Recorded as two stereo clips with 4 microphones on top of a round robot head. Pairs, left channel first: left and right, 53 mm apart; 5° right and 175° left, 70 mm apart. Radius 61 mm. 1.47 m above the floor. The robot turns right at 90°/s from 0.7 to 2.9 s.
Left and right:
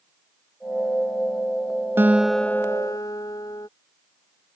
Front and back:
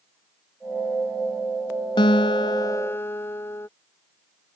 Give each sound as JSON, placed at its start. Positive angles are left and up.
{"t": 2.0, "sound": "a guitar", "azimuth_deg": -30}